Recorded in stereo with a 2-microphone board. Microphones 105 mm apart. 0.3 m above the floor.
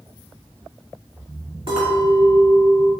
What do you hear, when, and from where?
1.7 s a clink: 65° right (ahead or behind), 2 m